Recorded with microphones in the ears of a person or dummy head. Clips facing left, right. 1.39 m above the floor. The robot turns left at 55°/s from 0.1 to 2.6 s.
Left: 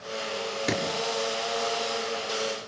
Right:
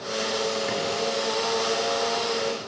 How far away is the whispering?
No whispering in this recording.